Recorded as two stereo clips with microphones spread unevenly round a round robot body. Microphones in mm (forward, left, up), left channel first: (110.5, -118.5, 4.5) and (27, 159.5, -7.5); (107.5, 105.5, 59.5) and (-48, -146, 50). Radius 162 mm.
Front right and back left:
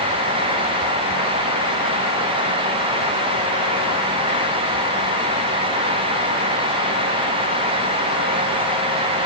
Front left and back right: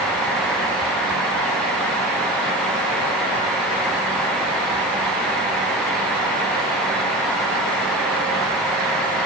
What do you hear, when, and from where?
Only background noise.